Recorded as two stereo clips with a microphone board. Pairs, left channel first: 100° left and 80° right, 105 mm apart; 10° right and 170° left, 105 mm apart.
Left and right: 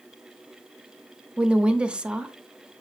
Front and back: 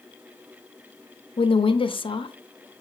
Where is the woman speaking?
Straight ahead, 0.7 m.